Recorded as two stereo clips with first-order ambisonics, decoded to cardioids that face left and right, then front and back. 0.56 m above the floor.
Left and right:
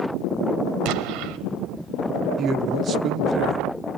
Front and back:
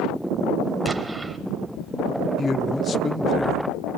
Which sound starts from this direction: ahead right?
A man speaking, at 2.4 s.